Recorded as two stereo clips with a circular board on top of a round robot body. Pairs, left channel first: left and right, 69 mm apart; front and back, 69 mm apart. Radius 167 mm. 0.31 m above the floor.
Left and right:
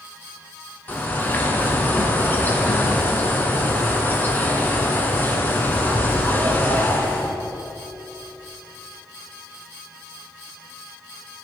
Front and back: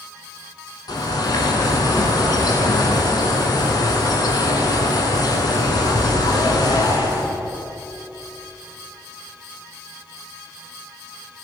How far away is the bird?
About 1.2 m.